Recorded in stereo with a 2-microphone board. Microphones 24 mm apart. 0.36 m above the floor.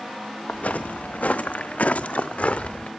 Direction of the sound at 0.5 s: 75° left (ahead or behind).